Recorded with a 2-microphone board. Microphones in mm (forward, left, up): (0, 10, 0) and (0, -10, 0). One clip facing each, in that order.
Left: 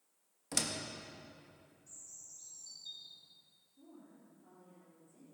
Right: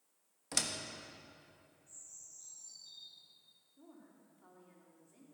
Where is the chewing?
I don't hear chewing.